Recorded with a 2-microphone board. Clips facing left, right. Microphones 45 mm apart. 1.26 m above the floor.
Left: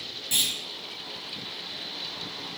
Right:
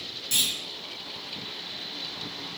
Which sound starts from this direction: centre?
A clunk, at 0.3 s.